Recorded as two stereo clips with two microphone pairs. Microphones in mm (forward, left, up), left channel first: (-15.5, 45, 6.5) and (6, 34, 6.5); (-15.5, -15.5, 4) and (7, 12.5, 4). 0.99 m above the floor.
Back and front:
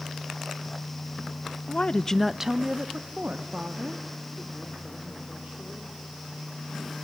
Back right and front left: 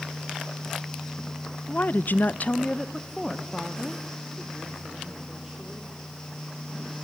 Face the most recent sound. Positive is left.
turn(degrees=-25)